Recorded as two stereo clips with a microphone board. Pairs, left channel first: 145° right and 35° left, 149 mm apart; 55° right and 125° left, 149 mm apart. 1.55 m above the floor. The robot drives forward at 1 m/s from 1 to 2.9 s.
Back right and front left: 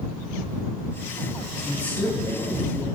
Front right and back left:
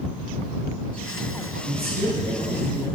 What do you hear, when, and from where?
1.6 s a woman speaking: 125° left, 1.2 m; by 2.9 s 155° left, 2 m